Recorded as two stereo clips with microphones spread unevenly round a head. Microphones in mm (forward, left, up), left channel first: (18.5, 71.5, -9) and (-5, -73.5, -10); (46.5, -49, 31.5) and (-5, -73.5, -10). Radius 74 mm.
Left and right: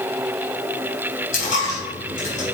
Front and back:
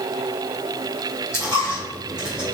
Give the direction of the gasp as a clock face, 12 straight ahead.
No gasp in this recording.